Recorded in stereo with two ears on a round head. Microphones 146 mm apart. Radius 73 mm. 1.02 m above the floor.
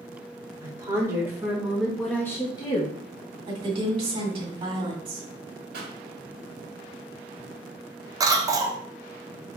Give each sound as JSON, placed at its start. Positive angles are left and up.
{"t": 0.6, "sound": "a woman speaking", "side_deg": -20, "distance_m": 2.5}
{"t": 3.5, "sound": "a woman speaking", "side_deg": -30, "distance_m": 2.5}
{"t": 5.7, "sound": "a pop", "side_deg": -65, "distance_m": 1.6}
{"t": 8.2, "sound": "a cough", "side_deg": -20, "distance_m": 0.8}